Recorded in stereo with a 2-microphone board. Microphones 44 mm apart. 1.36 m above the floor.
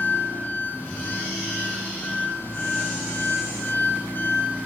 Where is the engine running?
50° left (ahead or behind), 8.5 m.